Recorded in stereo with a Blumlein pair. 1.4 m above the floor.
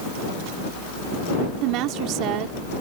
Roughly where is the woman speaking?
Ahead right.